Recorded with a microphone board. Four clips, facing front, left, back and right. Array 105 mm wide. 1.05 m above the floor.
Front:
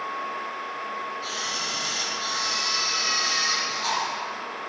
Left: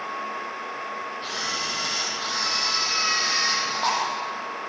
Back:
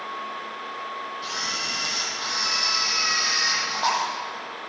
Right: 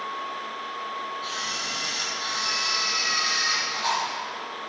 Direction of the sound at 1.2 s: 145° left.